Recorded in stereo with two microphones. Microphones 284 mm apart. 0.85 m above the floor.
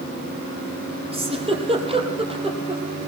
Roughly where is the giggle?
Centre.